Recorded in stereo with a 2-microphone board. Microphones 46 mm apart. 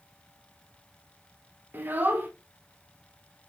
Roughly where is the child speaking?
Right.